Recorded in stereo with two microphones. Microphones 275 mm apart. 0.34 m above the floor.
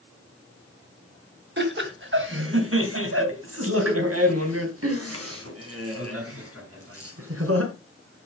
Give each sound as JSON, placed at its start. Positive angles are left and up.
{"t": 1.6, "sound": "laughter", "side_deg": -45, "distance_m": 2.5}